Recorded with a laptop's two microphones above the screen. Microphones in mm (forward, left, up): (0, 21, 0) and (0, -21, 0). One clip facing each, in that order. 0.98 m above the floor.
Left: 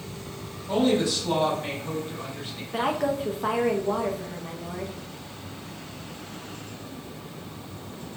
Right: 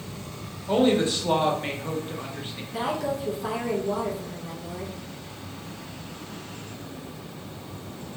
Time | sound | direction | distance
0.7 | a woman speaking | 30° right (ahead or behind) | 0.7 m
2.7 | a woman speaking | 45° left (ahead or behind) | 0.8 m